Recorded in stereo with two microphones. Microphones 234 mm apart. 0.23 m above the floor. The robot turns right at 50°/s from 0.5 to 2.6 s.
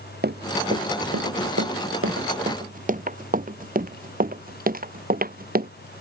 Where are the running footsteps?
45° right (ahead or behind); by 5.7 s 40° right (ahead or behind).